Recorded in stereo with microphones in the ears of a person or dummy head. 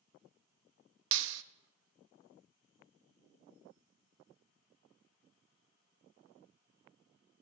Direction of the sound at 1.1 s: 75° right (ahead or behind).